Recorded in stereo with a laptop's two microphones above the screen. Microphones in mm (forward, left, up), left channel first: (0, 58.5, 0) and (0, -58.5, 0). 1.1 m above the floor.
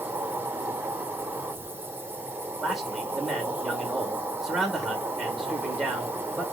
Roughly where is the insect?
Centre.